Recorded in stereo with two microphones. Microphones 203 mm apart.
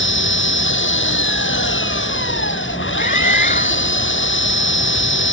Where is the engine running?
70° left (ahead or behind).